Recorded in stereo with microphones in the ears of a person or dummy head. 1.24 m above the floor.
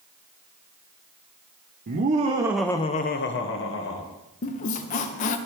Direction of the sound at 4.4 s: 40° left (ahead or behind).